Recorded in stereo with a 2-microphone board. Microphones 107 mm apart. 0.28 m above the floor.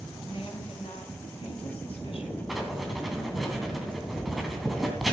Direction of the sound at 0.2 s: 60° left (ahead or behind).